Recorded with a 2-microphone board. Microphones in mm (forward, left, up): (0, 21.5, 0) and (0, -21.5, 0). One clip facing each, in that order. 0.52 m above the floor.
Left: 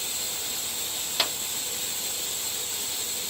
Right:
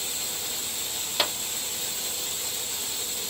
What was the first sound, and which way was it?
A clap, 5° right (ahead or behind).